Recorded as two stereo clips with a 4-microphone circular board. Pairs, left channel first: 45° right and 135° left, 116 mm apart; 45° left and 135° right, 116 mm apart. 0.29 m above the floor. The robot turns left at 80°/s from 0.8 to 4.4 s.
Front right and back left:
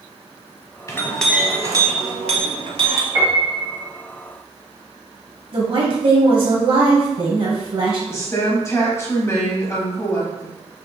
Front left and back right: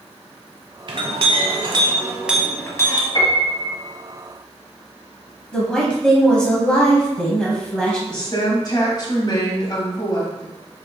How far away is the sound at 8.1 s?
About 1.6 m.